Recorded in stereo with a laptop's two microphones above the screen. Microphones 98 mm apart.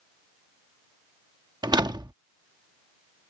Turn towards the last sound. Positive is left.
turn(degrees=-45)  # may be behind; listen again after turning